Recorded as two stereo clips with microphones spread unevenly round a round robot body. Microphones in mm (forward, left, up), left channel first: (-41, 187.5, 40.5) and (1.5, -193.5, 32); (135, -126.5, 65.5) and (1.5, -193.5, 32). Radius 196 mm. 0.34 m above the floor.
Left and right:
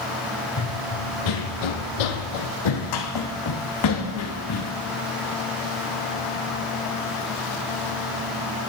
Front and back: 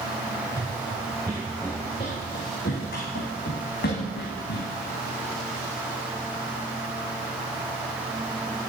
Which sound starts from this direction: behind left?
Running footsteps, at 0.6 s.